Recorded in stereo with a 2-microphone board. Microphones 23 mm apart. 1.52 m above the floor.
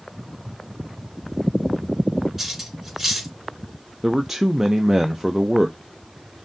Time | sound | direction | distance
2.4 | cutlery clinking | 10° right (ahead or behind) | 3 m
4.0 | a man speaking | 15° right (ahead or behind) | 0.6 m